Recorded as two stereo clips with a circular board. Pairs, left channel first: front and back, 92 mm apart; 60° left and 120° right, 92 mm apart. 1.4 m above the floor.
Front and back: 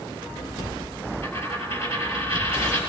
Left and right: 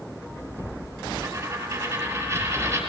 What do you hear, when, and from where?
1.2 s a dropped coin: 55° right, 7.5 m